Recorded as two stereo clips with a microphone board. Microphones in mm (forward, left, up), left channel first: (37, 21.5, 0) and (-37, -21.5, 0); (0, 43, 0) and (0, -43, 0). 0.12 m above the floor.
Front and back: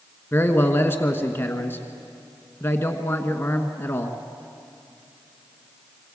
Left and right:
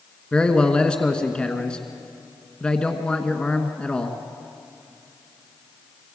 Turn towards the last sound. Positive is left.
turn(degrees=25)